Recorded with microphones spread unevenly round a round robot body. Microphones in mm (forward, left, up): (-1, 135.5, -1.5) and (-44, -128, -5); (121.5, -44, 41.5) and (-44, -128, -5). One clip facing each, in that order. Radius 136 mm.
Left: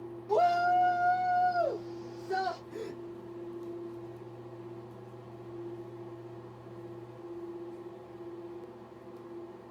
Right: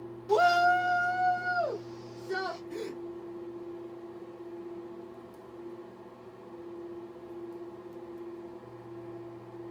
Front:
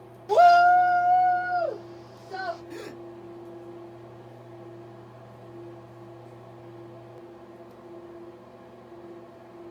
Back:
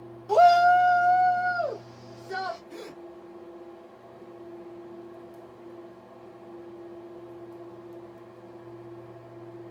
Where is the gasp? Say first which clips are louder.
Right 3 dB, front 2 dB; 50° right, 2 m.